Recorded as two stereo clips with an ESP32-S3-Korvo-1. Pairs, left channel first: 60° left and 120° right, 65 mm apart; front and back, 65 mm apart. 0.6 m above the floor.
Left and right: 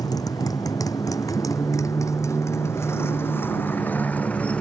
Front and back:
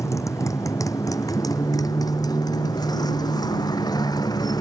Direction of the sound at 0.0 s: 40° left.